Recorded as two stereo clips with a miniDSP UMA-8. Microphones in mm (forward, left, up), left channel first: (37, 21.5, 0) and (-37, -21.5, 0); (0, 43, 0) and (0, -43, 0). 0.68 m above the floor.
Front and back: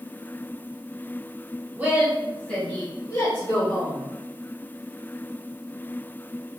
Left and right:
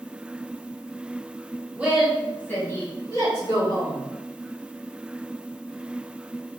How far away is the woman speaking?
About 0.7 m.